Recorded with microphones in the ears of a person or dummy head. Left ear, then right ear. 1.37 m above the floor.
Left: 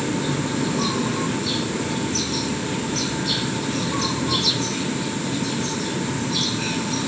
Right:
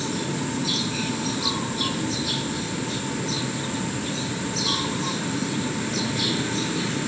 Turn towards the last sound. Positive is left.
No sound to turn to.